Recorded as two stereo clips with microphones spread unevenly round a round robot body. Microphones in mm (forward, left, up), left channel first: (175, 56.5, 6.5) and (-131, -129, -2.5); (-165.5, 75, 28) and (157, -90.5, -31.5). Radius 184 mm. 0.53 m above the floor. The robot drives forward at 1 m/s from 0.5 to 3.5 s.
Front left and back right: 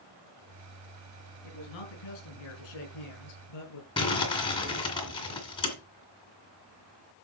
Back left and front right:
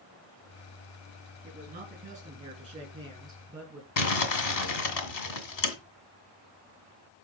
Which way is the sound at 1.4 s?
40° left.